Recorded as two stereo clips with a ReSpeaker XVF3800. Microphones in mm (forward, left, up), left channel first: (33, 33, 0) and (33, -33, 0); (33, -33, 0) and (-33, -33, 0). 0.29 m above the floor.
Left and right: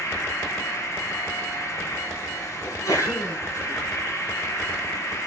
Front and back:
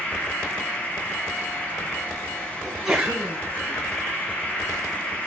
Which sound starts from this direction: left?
A sneeze, at 2.6 s.